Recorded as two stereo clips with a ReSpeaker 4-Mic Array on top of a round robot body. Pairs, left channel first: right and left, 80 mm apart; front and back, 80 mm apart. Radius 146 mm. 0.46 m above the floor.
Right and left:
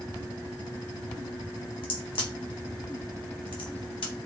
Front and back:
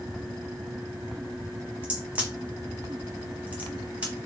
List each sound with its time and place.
1.8 s a crack: 105° right, 1.2 m